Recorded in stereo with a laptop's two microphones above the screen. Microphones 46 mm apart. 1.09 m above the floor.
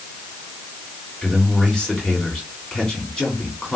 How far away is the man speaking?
About 3.5 m.